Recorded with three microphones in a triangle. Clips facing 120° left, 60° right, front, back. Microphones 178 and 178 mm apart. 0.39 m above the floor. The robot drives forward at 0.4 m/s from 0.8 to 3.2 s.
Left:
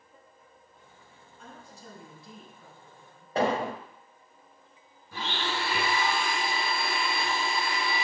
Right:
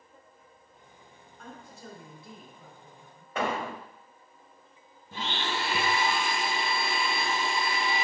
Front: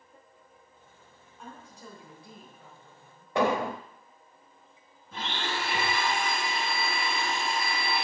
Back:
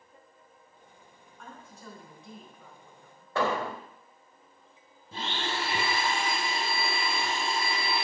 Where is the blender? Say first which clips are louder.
Even, even; 125° right, 2.5 m.